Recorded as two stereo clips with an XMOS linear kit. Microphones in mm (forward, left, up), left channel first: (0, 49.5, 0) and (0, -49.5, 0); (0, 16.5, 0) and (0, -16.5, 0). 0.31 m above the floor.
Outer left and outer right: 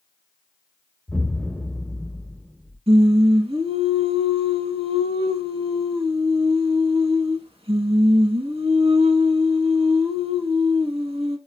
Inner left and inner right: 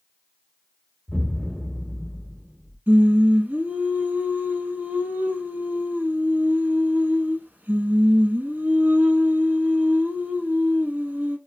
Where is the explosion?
5° left (ahead or behind), 0.7 m.